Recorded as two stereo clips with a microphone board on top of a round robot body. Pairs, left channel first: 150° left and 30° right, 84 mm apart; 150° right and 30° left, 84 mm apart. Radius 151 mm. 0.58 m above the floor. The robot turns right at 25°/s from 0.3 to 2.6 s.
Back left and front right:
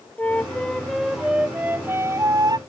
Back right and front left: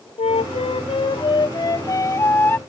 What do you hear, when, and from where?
0.2 s a flute: 135° right; by 2.6 s 80° right